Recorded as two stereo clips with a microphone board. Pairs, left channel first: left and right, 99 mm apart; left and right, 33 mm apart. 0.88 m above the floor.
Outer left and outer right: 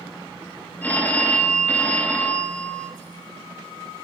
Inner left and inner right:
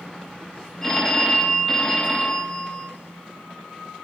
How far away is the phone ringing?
About 0.6 m.